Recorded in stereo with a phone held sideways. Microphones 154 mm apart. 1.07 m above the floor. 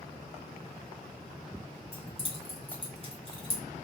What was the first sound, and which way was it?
Keys jangling, 35° left (ahead or behind).